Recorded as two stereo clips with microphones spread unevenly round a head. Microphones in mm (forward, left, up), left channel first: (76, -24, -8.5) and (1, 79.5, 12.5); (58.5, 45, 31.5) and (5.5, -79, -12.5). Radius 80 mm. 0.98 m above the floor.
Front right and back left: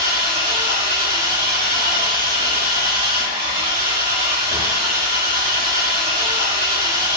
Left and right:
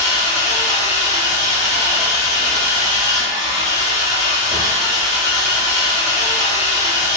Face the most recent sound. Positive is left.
turn(degrees=105)